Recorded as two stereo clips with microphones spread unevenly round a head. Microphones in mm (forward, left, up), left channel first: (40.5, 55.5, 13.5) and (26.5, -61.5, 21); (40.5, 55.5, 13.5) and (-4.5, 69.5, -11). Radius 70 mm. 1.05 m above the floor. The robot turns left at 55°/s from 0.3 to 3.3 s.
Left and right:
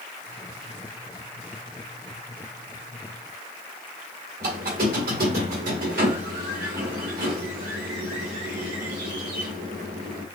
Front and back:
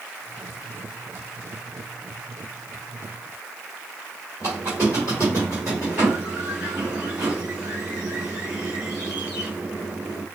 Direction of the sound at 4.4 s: 110° right.